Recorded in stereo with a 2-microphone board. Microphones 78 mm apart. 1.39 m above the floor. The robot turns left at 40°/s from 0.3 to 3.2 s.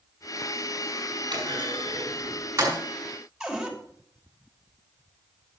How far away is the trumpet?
I don't hear a trumpet.